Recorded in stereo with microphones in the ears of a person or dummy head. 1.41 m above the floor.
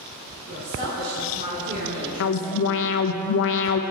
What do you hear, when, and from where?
0.5 s a woman speaking: 55° right (ahead or behind), 3.5 m; by 3.0 s 30° right (ahead or behind), 3 m
2.2 s an alarm: 75° left (ahead or behind), 0.8 m